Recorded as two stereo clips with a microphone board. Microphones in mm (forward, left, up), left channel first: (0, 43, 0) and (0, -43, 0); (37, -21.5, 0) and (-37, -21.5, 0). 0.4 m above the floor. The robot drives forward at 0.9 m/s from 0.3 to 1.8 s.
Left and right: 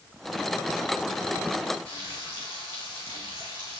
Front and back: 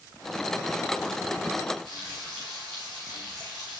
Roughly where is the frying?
Left.